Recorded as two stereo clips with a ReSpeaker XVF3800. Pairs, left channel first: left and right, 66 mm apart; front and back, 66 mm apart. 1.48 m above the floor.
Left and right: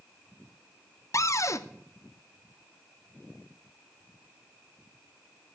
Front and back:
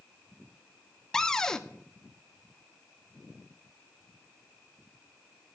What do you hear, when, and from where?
1.1 s a cupboard door: 80° left, 0.6 m